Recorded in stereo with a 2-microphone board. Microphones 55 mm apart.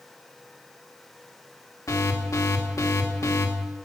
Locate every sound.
1.9 s an alarm: 70° left (ahead or behind), 1.1 m